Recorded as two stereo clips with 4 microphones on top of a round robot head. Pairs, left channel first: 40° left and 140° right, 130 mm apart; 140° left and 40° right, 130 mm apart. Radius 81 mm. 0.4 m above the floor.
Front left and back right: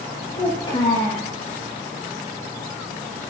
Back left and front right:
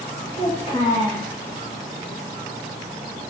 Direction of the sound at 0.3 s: 85° left.